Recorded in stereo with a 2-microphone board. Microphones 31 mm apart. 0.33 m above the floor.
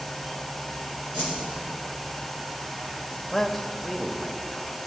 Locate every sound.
1.1 s a whoosh: 50° right (ahead or behind), 4.5 m
3.3 s a man speaking: 5° left (ahead or behind), 1.0 m